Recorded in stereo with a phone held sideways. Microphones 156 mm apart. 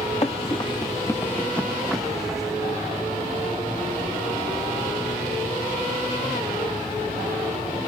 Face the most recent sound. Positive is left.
turn(degrees=-5)  # may be behind; listen again after turning